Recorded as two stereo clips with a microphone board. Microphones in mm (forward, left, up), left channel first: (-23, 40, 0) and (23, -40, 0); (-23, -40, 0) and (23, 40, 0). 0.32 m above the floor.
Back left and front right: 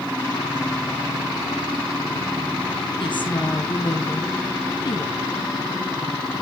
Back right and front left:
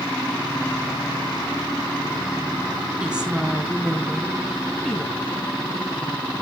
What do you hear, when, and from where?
3.0 s a woman speaking: 140° left, 2.5 m; by 5.6 s 170° left, 3 m